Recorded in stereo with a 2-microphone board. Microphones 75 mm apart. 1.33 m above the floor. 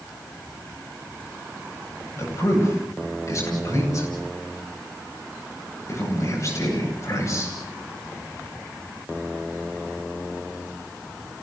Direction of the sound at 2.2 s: 45° left (ahead or behind).